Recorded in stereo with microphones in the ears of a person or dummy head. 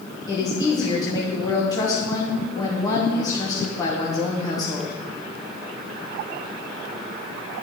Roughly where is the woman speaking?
Centre.